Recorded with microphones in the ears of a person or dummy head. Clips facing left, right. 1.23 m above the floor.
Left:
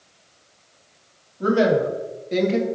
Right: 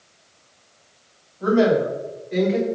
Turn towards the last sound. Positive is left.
turn(degrees=60)  # may be behind; listen again after turning